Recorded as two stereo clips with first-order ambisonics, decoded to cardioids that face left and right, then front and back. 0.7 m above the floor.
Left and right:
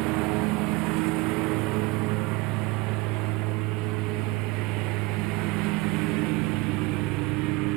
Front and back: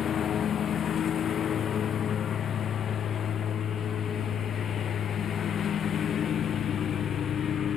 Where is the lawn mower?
65° right.